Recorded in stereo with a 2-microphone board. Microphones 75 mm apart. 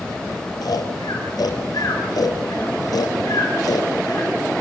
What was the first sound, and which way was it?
Snoring, 60° left (ahead or behind).